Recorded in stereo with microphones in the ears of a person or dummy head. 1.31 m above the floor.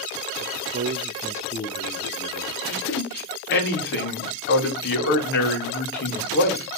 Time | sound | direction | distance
0.4 | a man speaking | 55° right (ahead or behind) | 0.8 m
2.7 | a man speaking | 55° left (ahead or behind) | 2.5 m